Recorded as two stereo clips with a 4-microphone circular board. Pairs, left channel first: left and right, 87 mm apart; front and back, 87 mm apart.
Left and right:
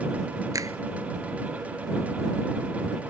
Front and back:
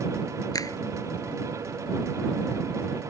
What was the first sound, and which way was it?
A finger snap, 45° right.